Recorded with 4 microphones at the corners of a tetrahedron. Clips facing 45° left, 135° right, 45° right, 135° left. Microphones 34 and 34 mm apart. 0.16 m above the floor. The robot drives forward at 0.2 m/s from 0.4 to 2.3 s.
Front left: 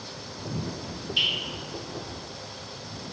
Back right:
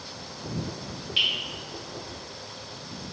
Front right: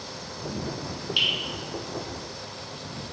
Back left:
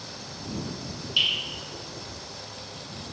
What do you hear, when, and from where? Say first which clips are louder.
1.2 s dripping: back right 1 dB, even; 125° right, 1.3 m; by 1.3 s 130° right, 1.4 m